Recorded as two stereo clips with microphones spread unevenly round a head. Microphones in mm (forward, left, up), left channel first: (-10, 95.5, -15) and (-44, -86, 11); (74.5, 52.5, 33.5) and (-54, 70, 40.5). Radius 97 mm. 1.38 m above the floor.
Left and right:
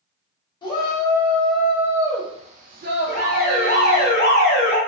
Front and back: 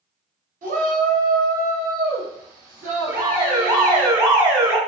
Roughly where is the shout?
Behind left.